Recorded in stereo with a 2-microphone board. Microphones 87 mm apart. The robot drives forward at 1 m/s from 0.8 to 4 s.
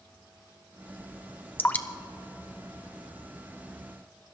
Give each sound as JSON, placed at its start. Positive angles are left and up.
{"t": 1.6, "sound": "dripping", "side_deg": 25, "distance_m": 0.5}